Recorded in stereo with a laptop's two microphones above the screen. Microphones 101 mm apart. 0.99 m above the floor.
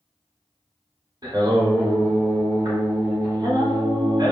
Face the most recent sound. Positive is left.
turn(degrees=-45)  # may be behind; listen again after turning